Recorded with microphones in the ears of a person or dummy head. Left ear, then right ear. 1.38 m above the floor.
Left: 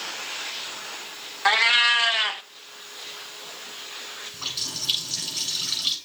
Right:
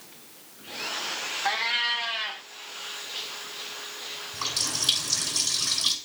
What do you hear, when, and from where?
1.4 s a cat meowing: 35° left (ahead or behind), 0.7 m
4.3 s a running tap: 55° right (ahead or behind), 6.5 m